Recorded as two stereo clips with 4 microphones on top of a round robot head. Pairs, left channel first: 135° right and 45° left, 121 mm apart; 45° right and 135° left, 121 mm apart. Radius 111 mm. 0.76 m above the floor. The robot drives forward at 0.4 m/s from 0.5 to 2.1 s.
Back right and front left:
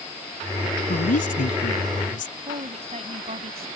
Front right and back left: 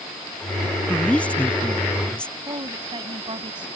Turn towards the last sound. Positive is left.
turn(degrees=80)